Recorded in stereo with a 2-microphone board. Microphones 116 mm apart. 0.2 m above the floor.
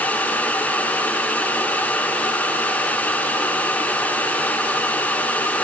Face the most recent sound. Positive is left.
No sound to turn to.